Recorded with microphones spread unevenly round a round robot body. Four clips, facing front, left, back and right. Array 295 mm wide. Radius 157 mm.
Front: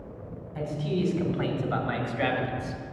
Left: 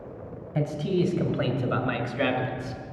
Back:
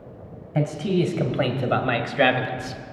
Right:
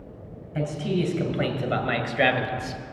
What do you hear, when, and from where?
0.6 s a man speaking: 170° left, 2.5 m; by 2.8 s 145° right, 2 m